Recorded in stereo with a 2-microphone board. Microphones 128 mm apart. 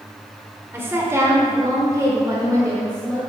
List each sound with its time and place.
0.7 s a woman speaking: 15° right (ahead or behind), 1.1 m; by 3.2 s 25° right (ahead or behind), 1.4 m